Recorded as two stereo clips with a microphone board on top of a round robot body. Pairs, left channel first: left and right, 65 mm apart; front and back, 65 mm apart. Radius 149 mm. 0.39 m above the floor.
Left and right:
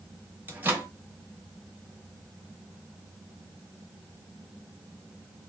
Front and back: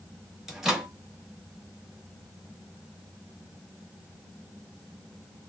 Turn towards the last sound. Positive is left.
turn(degrees=-105)